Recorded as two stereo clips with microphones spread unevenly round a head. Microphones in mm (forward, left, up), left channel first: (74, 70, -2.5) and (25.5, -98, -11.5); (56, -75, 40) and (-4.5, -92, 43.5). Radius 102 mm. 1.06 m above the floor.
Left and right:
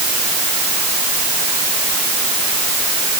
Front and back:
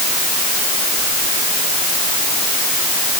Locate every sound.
Only background noise.